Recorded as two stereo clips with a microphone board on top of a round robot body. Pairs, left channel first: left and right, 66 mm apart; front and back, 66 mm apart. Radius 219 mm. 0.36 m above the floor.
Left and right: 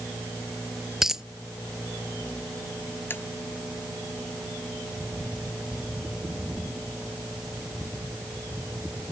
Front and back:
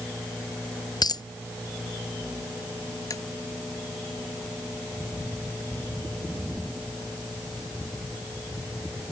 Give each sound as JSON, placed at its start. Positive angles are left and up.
{"t": 1.0, "sound": "a dropped coin", "azimuth_deg": -10}
{"t": 3.1, "sound": "tapping", "azimuth_deg": 30}